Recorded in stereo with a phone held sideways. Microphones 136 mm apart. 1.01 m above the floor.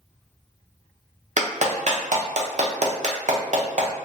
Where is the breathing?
No breathing in this recording.